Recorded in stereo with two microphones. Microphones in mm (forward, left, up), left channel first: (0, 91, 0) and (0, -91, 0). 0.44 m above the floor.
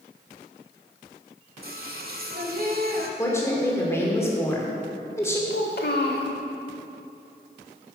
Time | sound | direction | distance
1.6 | singing | 55° right (ahead or behind) | 0.8 m
3.2 | a woman speaking | 15° left (ahead or behind) | 1.3 m
5.5 | a child speaking | 60° left (ahead or behind) | 1.0 m